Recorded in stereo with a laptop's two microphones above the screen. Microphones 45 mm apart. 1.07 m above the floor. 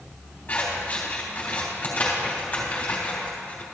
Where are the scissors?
35° left (ahead or behind), 3.5 m.